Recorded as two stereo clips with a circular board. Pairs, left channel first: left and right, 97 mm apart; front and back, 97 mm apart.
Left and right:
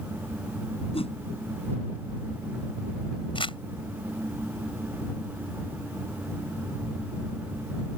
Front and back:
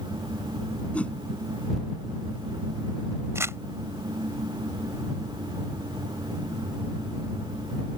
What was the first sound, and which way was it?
A whoosh, 75° left.